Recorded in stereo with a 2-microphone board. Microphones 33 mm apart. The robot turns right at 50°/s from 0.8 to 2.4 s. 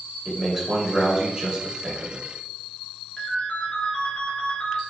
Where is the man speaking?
20° right (ahead or behind), 0.9 m; by 2.3 s 15° right (ahead or behind), 0.9 m.